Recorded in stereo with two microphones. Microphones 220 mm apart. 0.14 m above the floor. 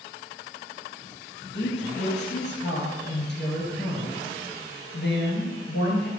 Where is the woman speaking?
55° left (ahead or behind), 2.5 m.